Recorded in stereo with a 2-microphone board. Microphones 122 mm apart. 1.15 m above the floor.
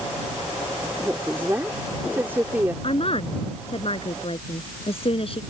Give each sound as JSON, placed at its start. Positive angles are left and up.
{"t": 1.0, "sound": "a woman speaking", "side_deg": -20}
{"t": 2.8, "sound": "a woman speaking", "side_deg": 50}